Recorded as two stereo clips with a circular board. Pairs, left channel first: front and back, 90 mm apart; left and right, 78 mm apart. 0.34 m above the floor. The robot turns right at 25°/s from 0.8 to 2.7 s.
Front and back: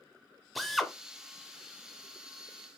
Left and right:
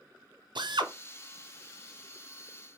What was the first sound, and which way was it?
A drill, 90° right.